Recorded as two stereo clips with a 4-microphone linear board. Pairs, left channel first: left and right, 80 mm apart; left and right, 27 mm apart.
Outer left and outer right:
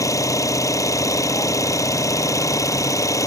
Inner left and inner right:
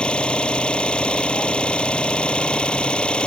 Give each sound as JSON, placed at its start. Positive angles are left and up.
{"t": 0.0, "sound": "an engine running", "side_deg": 40}